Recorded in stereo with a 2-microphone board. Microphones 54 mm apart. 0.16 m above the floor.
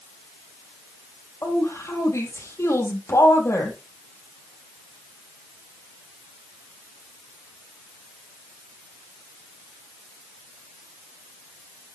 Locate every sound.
1.4 s a woman speaking: 65° left (ahead or behind), 5 m